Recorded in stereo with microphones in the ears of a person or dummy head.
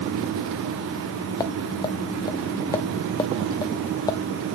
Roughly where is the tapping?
Centre.